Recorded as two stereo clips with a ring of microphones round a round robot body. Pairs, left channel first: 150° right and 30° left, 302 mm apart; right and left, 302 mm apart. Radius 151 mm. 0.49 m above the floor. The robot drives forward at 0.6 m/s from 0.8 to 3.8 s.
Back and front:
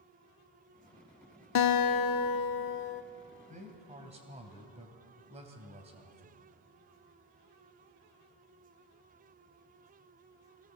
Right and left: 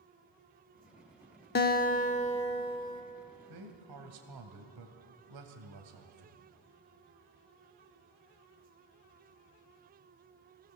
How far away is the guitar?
About 0.7 m.